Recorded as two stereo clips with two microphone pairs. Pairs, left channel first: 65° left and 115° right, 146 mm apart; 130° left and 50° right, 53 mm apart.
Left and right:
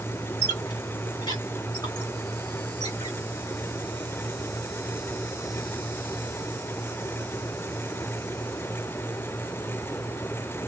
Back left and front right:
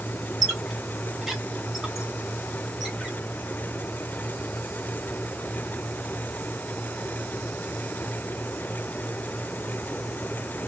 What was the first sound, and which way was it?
A squeak, 25° left.